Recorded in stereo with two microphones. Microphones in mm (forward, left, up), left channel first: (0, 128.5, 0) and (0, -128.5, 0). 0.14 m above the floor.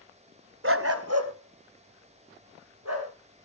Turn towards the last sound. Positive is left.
turn(degrees=-85)